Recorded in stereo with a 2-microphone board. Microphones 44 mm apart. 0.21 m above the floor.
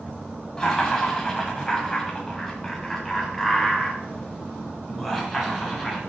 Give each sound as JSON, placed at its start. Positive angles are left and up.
{"t": 0.6, "sound": "laughter", "side_deg": 10, "distance_m": 1.6}